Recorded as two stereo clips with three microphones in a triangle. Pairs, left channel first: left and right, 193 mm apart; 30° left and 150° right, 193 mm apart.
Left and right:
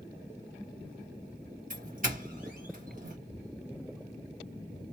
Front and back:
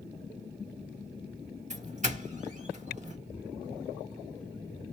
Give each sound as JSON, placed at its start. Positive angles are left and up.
{"t": 1.7, "sound": "a doorbell", "azimuth_deg": -115, "distance_m": 1.5}